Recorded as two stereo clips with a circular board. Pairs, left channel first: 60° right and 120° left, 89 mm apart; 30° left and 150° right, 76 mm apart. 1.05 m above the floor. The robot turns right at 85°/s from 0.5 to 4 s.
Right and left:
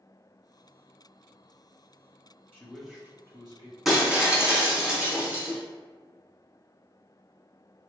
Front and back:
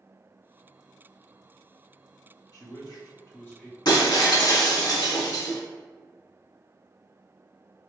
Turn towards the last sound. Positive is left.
turn(degrees=45)